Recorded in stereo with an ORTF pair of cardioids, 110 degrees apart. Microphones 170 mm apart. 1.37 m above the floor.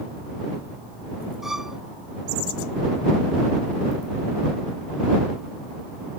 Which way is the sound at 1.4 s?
Straight ahead.